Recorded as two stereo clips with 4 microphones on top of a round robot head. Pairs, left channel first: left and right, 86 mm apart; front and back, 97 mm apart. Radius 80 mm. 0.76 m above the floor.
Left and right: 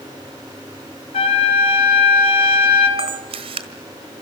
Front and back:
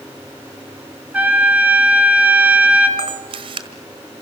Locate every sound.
1.1 s a trumpet: 105° left, 4 m
3.0 s a camera shutter: 130° right, 1.4 m